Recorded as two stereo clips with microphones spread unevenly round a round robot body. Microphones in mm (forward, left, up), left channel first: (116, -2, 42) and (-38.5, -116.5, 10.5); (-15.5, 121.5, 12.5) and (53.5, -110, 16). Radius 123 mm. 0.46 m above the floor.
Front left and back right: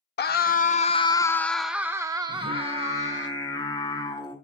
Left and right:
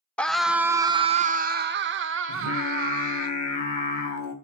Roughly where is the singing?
Left.